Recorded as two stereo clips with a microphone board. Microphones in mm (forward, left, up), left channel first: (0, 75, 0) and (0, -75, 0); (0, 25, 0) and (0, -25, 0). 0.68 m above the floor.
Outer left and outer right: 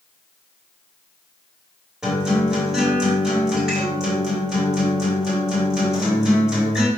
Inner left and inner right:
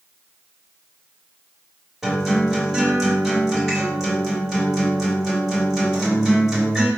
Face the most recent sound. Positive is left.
turn(degrees=-5)  # may be behind; listen again after turning